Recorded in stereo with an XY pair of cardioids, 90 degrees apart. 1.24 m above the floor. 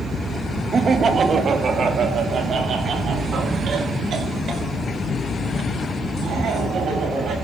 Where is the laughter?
45° right, 1.3 m; by 7.3 s 65° right, 7 m.